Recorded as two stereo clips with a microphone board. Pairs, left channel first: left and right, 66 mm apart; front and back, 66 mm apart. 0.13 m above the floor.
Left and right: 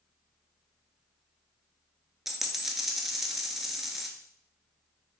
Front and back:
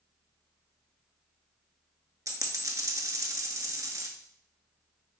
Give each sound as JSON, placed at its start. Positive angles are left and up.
{"t": 2.3, "sound": "a dropped coin", "azimuth_deg": -175, "distance_m": 0.5}